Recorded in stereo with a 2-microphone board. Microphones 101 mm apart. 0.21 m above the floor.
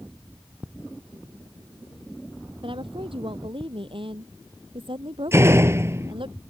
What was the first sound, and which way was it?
A woman speaking, 60° right (ahead or behind).